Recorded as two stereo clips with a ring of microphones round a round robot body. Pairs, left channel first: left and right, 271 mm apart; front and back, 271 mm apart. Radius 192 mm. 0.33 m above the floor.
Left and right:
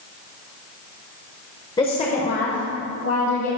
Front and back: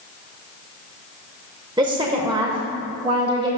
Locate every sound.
1.8 s a woman speaking: 135° left, 0.9 m; by 3.5 s 110° left, 1.6 m